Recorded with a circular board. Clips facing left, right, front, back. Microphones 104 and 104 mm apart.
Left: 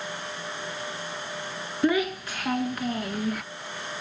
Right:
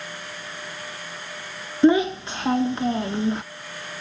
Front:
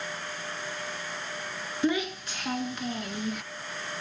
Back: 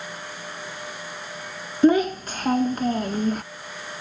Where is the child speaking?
150° right, 0.6 m.